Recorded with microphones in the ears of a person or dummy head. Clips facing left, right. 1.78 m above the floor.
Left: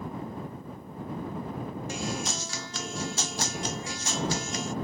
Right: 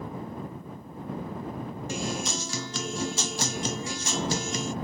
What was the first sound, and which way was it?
A guitar, 80° right.